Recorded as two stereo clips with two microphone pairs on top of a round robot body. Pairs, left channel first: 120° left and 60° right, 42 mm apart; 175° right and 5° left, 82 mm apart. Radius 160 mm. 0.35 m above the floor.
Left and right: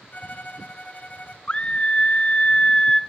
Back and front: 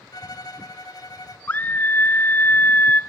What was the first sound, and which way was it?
A violin, 155° left.